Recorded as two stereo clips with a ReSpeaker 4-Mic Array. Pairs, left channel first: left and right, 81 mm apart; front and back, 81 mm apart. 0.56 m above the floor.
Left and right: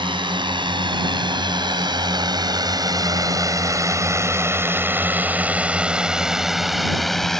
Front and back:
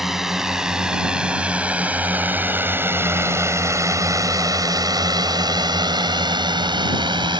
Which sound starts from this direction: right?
A drone, at 0.0 s.